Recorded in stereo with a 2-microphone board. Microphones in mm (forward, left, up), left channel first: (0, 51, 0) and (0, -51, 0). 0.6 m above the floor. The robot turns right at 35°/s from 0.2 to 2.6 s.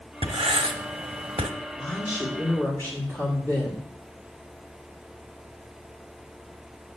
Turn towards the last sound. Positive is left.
turn(degrees=25)  # may be behind; listen again after turning